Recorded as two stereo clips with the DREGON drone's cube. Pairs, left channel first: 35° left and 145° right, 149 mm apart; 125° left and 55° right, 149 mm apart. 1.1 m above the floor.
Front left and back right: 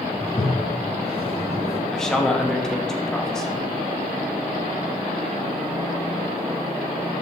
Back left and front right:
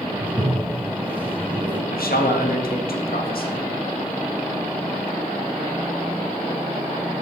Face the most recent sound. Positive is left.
turn(degrees=120)